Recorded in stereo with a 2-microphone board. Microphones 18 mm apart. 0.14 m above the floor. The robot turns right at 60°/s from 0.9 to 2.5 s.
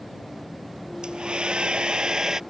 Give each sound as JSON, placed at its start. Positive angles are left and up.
{"t": 1.0, "sound": "a hair dryer", "azimuth_deg": -115}